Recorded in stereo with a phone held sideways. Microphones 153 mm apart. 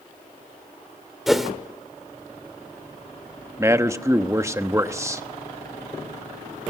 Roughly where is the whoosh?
Centre.